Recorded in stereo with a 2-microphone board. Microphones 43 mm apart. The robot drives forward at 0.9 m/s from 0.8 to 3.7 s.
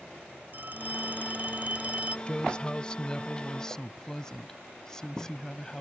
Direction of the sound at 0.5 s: 40° right (ahead or behind).